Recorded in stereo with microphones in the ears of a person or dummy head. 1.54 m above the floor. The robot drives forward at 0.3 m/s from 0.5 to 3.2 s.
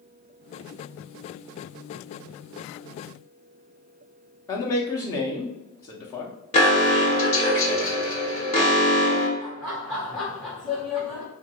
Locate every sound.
4.5 s a man speaking: 15° left (ahead or behind), 0.6 m
6.5 s an alarm: 25° left (ahead or behind), 0.9 m
9.4 s laughter: 5° left (ahead or behind), 1.4 m